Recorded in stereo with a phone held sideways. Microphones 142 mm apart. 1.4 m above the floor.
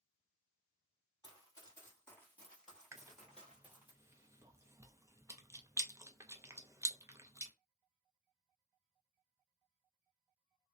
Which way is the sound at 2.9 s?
20° right (ahead or behind).